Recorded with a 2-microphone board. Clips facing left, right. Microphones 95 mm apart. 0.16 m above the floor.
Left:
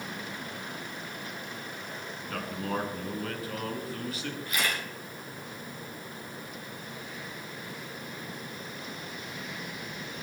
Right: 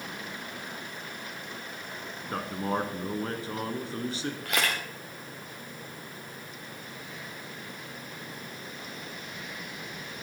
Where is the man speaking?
30° right (ahead or behind), 1.3 m.